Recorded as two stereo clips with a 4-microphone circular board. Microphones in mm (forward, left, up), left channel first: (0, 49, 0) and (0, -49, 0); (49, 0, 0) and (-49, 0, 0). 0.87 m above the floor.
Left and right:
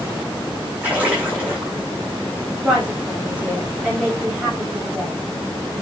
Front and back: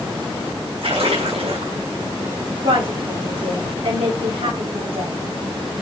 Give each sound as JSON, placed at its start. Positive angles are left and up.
{"t": 0.8, "sound": "a splash", "azimuth_deg": -165, "distance_m": 5.5}
{"t": 2.6, "sound": "a woman speaking", "azimuth_deg": -170, "distance_m": 5.0}